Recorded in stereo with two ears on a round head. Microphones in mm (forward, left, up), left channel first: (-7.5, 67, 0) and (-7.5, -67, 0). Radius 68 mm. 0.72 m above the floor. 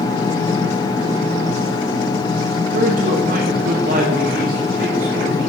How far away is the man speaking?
About 1.9 m.